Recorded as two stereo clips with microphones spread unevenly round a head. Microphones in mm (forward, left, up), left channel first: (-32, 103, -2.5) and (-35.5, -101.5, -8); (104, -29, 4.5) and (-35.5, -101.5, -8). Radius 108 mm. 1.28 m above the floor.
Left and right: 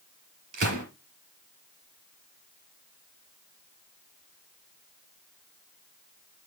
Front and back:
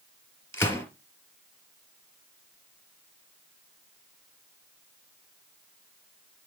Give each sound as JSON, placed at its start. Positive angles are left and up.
{"t": 0.5, "sound": "a gunshot", "azimuth_deg": -45, "distance_m": 4.5}